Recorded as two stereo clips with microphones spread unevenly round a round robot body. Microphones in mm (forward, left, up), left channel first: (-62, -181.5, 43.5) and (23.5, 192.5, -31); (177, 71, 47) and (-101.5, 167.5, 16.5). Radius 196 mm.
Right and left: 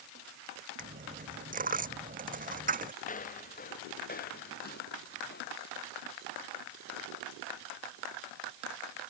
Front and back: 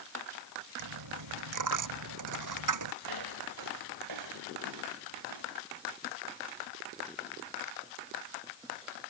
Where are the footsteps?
175° right; by 5.6 s 165° right.